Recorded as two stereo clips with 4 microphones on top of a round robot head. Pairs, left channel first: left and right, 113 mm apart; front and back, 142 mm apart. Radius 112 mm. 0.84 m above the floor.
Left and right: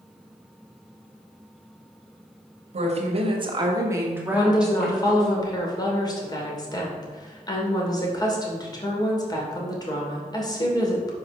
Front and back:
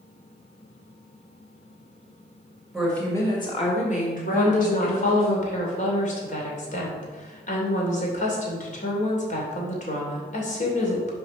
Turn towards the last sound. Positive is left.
turn(degrees=35)